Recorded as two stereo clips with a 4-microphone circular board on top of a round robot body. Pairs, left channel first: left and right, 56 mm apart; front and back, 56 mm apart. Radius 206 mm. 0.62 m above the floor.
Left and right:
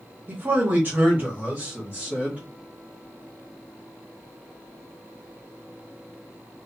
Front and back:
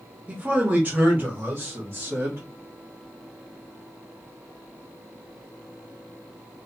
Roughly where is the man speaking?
Behind right.